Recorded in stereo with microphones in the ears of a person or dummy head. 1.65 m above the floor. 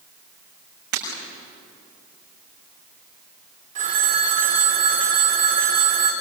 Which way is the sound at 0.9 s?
55° right (ahead or behind).